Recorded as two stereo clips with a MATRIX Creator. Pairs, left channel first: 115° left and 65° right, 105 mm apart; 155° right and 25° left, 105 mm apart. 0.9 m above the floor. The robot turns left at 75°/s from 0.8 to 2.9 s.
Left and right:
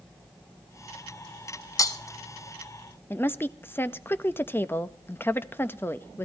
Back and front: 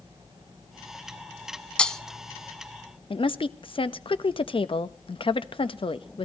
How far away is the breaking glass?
About 0.9 m.